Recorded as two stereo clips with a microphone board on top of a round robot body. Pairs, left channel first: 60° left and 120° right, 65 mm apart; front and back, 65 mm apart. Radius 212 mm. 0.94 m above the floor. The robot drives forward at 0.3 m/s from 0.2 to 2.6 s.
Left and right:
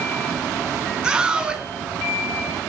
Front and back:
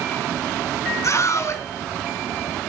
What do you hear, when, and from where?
1.0 s a scream: 45° right, 4.5 m